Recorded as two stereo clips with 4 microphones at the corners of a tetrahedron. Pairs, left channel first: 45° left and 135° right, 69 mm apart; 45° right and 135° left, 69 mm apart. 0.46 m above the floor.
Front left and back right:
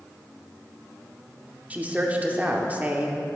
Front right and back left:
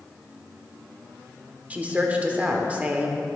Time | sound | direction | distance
1.7 | a woman speaking | straight behind | 0.8 m